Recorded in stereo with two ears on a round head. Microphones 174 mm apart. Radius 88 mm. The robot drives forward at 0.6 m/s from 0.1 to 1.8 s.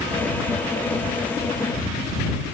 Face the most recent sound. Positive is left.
No sound to turn to.